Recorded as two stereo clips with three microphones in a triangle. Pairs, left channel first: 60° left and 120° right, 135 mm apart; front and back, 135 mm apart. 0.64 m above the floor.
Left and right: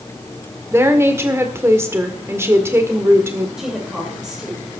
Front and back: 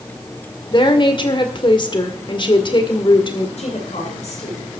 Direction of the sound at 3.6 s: 35° right.